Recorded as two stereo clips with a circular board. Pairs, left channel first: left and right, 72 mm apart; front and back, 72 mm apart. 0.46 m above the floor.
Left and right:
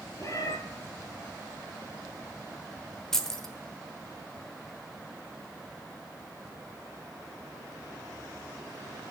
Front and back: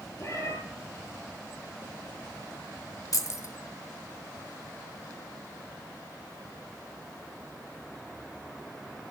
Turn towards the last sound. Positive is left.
turn(degrees=10)